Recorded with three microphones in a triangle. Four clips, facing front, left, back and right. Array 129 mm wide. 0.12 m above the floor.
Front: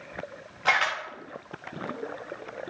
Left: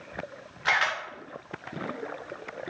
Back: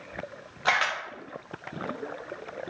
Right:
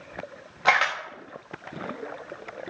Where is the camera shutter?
95° right, 4.5 m.